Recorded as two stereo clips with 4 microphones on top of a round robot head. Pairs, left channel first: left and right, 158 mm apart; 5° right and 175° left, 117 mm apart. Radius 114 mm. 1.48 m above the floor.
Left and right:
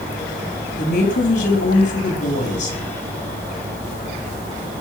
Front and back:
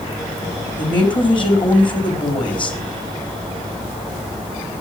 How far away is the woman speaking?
About 4.5 m.